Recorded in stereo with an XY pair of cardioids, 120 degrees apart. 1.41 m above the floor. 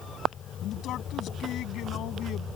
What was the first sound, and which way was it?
A man speaking, 65° left.